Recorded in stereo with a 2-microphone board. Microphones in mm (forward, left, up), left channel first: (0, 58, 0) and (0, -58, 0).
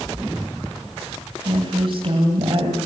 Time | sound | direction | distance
1.4 | a woman speaking | 50° right (ahead or behind) | 2.5 m